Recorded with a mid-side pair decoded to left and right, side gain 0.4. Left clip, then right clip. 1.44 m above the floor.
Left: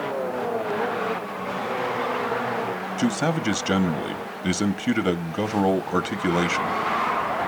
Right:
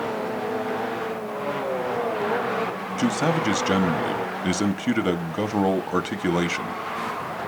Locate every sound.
3.0 s a man speaking: 5° left, 1.0 m